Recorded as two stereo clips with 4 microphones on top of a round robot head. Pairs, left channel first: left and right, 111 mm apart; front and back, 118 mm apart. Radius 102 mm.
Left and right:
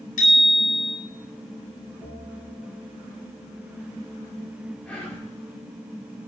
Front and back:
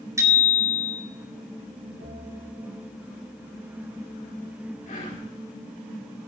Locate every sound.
0.2 s a bicycle bell: 120° left, 4.5 m
2.0 s a bell: 165° left, 6.5 m
4.8 s whispering: 15° left, 4 m